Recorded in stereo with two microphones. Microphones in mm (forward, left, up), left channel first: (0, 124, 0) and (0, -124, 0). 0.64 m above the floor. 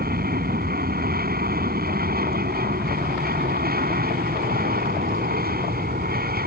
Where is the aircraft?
35° right (ahead or behind).